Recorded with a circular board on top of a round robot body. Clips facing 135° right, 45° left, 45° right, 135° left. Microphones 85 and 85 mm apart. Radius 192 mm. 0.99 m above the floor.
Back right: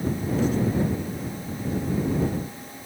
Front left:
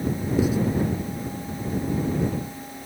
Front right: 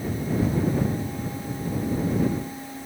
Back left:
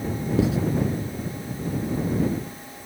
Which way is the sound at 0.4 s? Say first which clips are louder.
Front left 2 dB, back left 3 dB; 125° left.